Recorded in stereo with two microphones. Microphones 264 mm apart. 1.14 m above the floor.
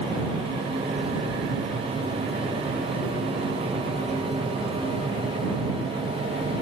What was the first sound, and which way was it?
Only background noise.